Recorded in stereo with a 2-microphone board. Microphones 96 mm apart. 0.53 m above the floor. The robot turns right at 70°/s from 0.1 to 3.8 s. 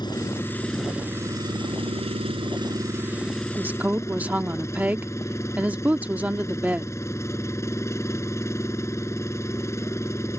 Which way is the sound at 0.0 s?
130° left.